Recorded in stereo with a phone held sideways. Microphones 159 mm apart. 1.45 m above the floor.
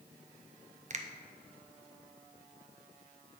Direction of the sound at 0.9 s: 50° right (ahead or behind).